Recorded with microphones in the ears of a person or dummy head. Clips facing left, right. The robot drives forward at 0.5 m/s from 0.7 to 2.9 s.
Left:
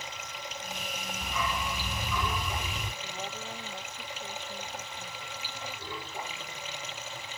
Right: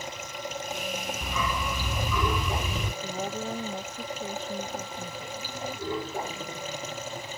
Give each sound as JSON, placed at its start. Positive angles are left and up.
{"t": 0.0, "sound": "running water", "side_deg": -35}
{"t": 1.2, "sound": "a dog barking", "side_deg": -75}
{"t": 3.0, "sound": "a woman speaking", "side_deg": -30}